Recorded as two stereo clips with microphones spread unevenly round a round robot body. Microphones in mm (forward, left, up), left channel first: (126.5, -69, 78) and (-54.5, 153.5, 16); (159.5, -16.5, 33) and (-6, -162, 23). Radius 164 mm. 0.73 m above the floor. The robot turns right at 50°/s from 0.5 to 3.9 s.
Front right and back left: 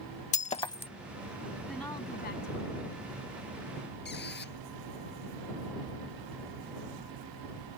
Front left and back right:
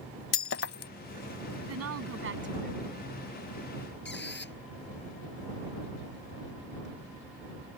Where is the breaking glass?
15° left; by 0.9 s 35° left.